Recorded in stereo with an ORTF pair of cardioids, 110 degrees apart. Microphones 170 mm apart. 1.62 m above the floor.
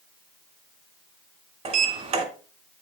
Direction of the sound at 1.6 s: 40° right.